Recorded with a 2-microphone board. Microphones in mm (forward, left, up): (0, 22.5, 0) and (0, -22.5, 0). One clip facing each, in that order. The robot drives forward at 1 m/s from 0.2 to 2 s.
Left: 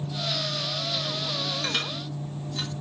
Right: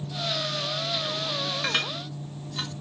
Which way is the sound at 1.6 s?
25° right (ahead or behind).